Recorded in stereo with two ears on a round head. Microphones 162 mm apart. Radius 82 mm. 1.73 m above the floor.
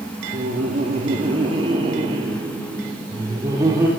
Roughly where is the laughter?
Right.